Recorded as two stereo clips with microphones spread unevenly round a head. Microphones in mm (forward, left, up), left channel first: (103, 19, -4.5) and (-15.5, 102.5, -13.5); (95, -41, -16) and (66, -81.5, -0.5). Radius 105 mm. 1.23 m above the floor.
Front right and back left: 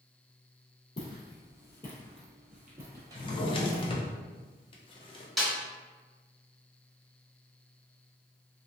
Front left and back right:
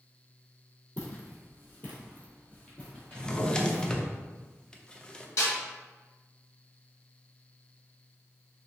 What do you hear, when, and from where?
1.0 s footsteps: 10° right, 1.6 m; by 3.9 s 145° left, 1.5 m
3.1 s a drawer: 35° right, 0.5 m
5.4 s a snare drum: 55° left, 1.4 m